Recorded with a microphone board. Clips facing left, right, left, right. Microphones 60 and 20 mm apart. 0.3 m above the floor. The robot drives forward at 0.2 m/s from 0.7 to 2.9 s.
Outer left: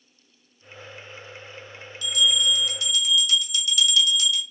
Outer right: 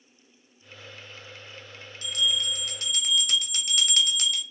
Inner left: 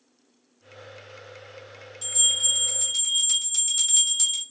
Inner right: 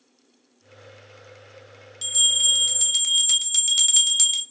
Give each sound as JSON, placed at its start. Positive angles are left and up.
{"t": 2.0, "sound": "a bell", "side_deg": -40, "distance_m": 0.6}